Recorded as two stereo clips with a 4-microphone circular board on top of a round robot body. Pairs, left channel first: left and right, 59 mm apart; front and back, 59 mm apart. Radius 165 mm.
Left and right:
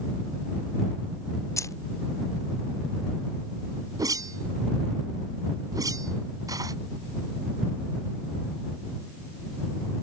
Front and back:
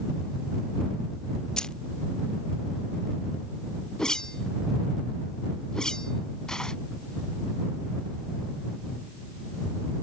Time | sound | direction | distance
1.6 | keys jangling | 75° left | ?
4.0 | a whoosh | 80° right | ?